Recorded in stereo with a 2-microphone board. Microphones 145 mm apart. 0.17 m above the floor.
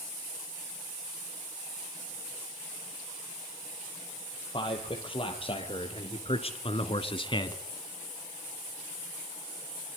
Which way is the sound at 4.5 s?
35° left (ahead or behind).